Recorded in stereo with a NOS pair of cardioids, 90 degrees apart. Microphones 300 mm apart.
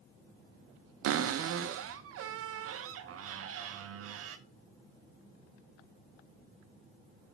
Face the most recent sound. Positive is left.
turn(degrees=-55)